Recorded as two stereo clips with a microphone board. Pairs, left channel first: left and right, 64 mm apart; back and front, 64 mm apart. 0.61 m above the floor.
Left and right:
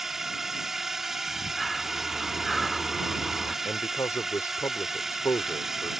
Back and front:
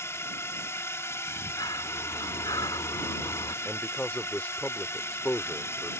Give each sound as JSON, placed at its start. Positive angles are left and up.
{"t": 0.0, "sound": "a drone", "azimuth_deg": -170}
{"t": 1.3, "sound": "breathing", "azimuth_deg": 175}
{"t": 3.6, "sound": "a man speaking", "azimuth_deg": 115}